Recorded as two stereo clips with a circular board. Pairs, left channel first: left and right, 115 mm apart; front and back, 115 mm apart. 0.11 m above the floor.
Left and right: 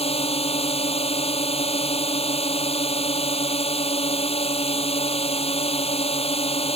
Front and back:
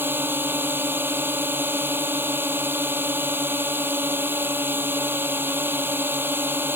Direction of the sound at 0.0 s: 110° left.